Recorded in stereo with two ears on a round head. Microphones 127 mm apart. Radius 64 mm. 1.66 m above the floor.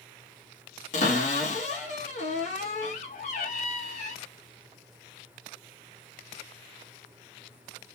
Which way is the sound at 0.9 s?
55° left (ahead or behind).